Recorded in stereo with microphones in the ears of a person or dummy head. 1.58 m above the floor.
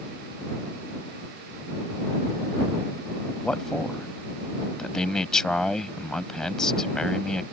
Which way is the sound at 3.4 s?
5° left (ahead or behind).